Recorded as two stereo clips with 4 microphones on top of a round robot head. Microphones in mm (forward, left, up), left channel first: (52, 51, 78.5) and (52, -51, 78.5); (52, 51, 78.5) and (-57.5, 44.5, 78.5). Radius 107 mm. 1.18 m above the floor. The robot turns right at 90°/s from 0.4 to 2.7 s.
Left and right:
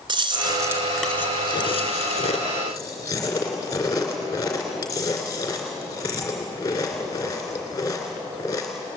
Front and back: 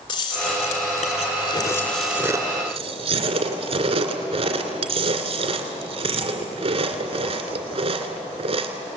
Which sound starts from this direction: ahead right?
Chewing, at 0.1 s.